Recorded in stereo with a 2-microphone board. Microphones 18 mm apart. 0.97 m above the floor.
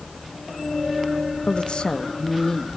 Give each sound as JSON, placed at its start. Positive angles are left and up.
{"t": 1.5, "sound": "a woman speaking", "side_deg": 70, "distance_m": 1.0}